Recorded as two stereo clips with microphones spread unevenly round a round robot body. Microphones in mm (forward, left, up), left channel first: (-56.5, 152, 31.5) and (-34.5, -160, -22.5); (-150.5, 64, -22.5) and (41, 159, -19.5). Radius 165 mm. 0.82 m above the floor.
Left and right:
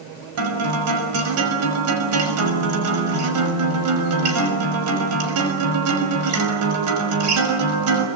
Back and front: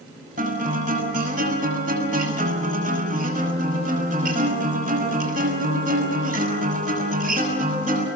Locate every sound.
0.4 s a guitar: 40° right, 5.5 m